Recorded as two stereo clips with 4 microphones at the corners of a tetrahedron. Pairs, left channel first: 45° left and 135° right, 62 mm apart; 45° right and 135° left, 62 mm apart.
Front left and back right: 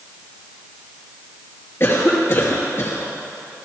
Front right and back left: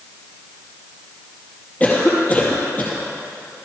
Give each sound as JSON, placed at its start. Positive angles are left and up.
{"t": 1.8, "sound": "a cough", "azimuth_deg": 10, "distance_m": 2.5}